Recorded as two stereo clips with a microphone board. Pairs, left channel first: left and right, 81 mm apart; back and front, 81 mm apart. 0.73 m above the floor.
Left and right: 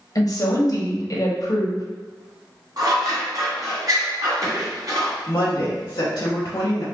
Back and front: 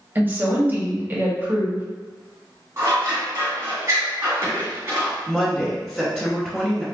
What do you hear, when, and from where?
0.1 s a woman speaking: 60° left, 1.0 m
2.8 s scissors: 55° right, 1.6 m
5.3 s a woman speaking: 85° left, 1.2 m